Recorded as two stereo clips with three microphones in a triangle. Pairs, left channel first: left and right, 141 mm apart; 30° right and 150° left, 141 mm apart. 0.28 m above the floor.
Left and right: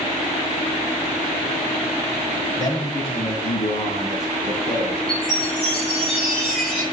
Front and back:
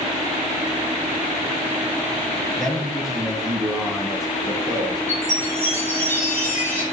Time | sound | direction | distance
2.6 | a man speaking | 55° left | 1.2 m
5.1 | a chime | 5° left | 4 m